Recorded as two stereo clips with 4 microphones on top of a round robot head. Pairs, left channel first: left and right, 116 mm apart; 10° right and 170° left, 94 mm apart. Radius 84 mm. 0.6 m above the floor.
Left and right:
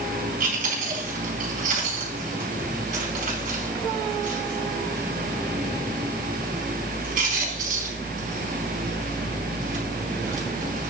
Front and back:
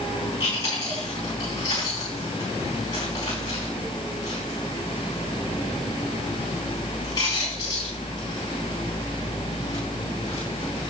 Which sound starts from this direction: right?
Chewing, at 0.4 s.